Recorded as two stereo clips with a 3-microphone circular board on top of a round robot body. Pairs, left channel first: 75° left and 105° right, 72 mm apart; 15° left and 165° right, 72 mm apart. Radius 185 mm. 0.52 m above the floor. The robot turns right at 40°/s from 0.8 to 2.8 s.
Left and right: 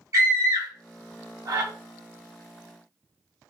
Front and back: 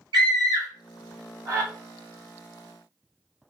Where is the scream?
155° right, 1.5 m; by 1.7 s 120° right, 1.5 m.